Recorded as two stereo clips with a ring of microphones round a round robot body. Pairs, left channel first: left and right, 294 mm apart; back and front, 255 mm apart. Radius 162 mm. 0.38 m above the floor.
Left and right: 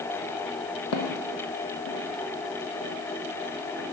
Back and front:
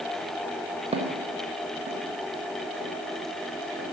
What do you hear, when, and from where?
0.9 s footsteps: 65° left, 1.2 m; by 3.9 s 50° left, 4 m